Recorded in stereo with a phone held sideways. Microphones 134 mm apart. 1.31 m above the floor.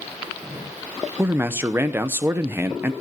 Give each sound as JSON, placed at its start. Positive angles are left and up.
{"t": 1.2, "sound": "a man speaking", "side_deg": -20, "distance_m": 0.6}